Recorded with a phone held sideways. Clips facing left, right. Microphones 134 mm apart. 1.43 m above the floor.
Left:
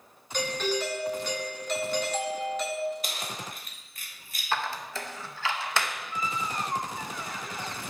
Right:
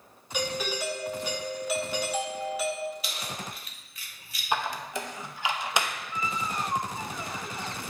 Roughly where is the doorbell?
Centre.